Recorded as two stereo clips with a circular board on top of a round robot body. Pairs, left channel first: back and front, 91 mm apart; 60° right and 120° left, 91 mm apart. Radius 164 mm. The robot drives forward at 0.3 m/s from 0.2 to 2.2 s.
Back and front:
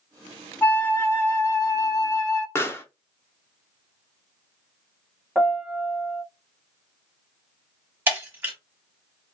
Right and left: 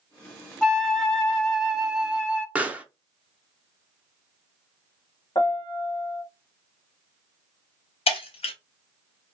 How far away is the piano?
About 0.9 m.